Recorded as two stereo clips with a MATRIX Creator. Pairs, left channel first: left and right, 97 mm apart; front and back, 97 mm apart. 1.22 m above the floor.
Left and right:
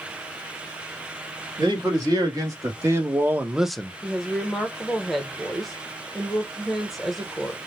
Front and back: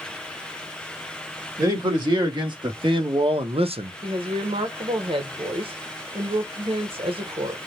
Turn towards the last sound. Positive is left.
turn(degrees=180)